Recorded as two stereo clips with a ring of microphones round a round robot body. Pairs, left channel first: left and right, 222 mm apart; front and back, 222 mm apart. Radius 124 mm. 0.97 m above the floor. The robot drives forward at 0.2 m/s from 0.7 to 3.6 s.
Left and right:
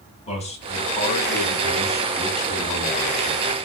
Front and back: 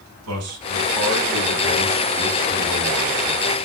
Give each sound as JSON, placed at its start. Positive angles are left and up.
{"t": 0.3, "sound": "a man speaking", "azimuth_deg": 150, "distance_m": 7.5}